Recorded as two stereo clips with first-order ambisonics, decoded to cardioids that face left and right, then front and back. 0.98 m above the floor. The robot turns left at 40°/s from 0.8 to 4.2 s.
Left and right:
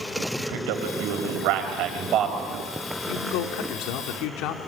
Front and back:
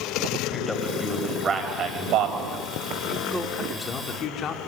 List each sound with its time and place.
0.4 s a man speaking: 85° right, 5.5 m; by 2.6 s 160° right, 5.5 m
3.1 s a man speaking: 100° left, 2.5 m; by 4.6 s 55° left, 2.5 m